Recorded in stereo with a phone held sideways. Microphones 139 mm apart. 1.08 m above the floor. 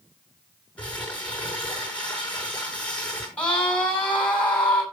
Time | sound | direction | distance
0.8 | crumpling | 10° left (ahead or behind) | 6.5 m
3.4 | a scream | 10° left (ahead or behind) | 6.5 m